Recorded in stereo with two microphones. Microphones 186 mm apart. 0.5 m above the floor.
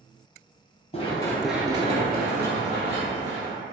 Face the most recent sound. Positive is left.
turn(degrees=-70)  # may be behind; listen again after turning